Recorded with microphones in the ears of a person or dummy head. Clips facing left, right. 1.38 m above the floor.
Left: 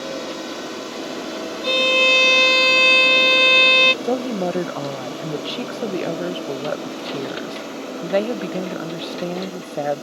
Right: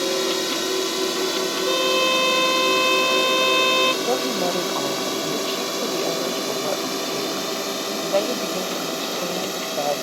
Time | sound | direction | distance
0.0 | a drone | 70° right (ahead or behind) | ?
1.6 | a violin | 30° left (ahead or behind) | ?
4.0 | a woman speaking | 15° left (ahead or behind) | ?